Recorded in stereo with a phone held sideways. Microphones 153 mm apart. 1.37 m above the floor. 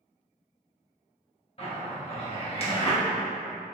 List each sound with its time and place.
1.6 s a zipper: 40° left (ahead or behind), 1.0 m